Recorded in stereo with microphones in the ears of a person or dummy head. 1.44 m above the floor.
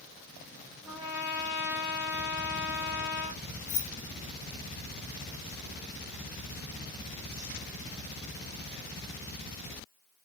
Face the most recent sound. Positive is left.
turn(degrees=60)  # may be behind; listen again after turning